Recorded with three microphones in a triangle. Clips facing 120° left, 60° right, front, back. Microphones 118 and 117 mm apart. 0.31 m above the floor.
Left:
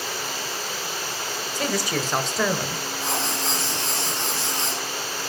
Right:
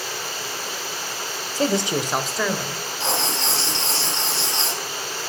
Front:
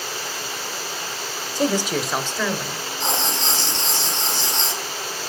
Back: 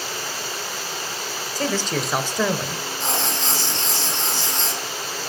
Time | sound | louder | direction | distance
1.6 | a man speaking | right 5 dB, front 3 dB | 45° right | 1.2 m
3.0 | writing | right 3 dB, front 2 dB | 65° right | 4.5 m